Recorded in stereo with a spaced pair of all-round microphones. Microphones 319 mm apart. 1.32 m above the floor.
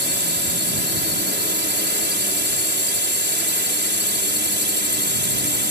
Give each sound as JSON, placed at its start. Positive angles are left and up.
{"t": 0.0, "sound": "a drone", "side_deg": -35}